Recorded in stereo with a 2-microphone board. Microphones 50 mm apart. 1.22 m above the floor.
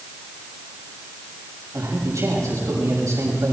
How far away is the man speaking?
About 6.5 m.